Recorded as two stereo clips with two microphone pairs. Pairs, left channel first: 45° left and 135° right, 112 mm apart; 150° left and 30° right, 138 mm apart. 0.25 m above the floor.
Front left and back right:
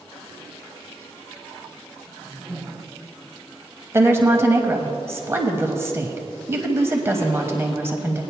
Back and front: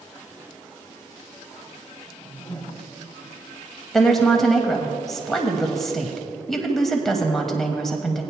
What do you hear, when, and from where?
2.1 s a whoosh: 155° right, 1.3 m
3.9 s a woman speaking: 125° right, 1.1 m